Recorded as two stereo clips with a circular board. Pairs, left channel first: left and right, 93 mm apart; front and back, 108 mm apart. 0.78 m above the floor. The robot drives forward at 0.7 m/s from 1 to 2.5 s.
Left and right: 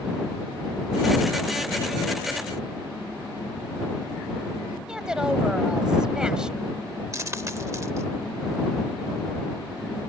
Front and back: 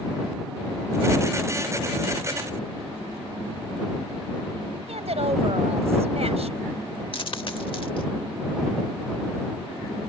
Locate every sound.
4.9 s a woman speaking: 170° right
7.1 s a dropped coin: 35° right